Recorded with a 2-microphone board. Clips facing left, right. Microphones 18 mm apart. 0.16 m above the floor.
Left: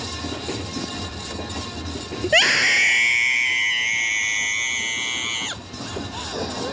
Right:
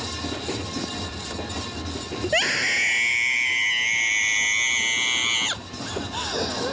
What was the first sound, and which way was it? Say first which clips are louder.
A scream: left 6 dB; 30° left (ahead or behind).